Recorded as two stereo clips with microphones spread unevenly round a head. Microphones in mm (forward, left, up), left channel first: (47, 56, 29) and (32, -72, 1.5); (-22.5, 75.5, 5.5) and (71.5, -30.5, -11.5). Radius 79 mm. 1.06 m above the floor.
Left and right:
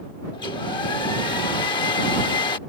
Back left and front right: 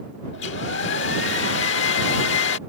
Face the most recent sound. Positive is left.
turn(degrees=150)